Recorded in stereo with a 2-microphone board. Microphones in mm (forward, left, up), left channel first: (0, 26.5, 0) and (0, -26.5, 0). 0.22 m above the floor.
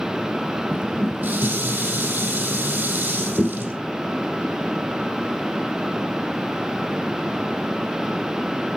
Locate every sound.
0.7 s dishes clattering: 30° right (ahead or behind), 5 m